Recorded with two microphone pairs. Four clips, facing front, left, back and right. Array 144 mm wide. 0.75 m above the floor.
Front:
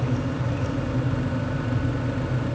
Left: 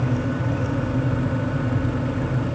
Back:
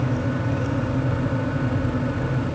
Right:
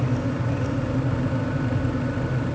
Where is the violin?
No violin in this recording.